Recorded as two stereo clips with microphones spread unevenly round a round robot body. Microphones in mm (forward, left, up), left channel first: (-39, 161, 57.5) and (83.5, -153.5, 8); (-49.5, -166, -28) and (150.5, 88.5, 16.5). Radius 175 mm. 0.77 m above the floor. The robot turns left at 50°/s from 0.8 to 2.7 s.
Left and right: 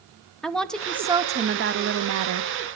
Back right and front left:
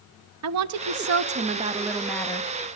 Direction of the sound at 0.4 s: 15° left.